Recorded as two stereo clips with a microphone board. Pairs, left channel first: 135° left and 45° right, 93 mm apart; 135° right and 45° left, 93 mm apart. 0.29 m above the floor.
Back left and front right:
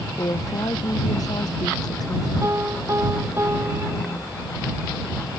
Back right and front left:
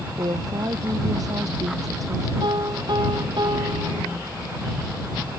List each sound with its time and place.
0.2 s a woman speaking: 85° left; by 2.3 s 95° left
2.4 s a piano: 15° left